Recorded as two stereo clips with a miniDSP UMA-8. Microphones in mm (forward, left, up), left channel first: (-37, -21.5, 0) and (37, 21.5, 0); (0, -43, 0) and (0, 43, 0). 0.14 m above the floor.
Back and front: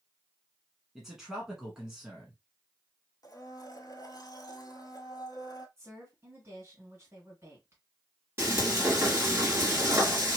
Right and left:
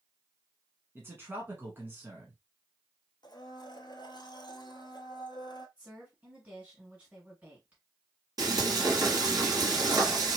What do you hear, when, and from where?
0.9 s a man speaking: 110° left, 1.2 m
3.2 s a blender: 110° right, 0.6 m
5.8 s a woman speaking: 35° left, 1.9 m
8.4 s frying: 80° left, 2.5 m